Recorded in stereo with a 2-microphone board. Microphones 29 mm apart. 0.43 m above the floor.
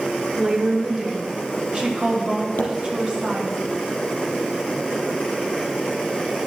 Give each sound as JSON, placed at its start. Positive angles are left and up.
{"t": 0.4, "sound": "a woman speaking", "side_deg": -30, "distance_m": 1.7}
{"t": 2.6, "sound": "a pop", "side_deg": 75, "distance_m": 2.0}